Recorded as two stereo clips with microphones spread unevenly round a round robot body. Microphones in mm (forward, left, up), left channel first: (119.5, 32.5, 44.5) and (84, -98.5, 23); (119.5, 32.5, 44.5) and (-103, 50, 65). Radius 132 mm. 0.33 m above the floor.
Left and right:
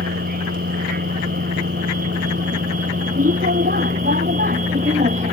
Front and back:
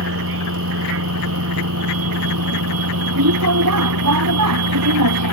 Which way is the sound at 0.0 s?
145° right.